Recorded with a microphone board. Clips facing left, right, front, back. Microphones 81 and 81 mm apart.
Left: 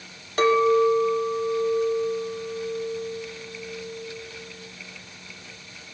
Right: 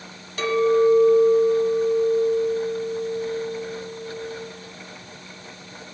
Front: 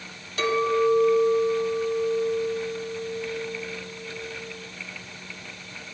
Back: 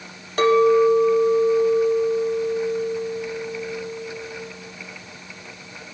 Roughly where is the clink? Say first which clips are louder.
Even, back 7 dB; behind left.